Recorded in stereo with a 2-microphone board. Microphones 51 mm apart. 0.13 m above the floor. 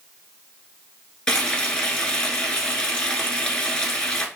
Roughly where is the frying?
Centre.